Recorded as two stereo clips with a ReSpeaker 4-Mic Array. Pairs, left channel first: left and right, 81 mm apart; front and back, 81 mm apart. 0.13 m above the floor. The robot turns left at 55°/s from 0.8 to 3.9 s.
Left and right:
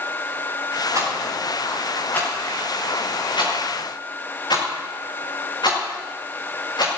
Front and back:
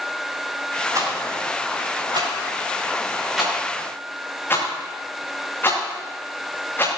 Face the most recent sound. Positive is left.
turn(degrees=65)